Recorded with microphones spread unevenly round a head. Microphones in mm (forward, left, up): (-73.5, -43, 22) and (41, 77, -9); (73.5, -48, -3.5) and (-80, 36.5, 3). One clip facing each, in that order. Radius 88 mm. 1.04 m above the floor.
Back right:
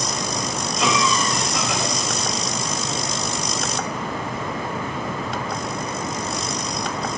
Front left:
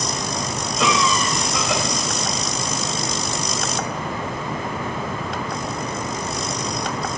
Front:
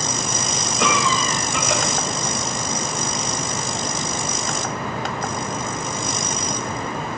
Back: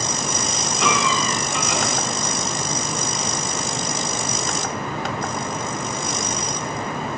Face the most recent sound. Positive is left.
turn(degrees=15)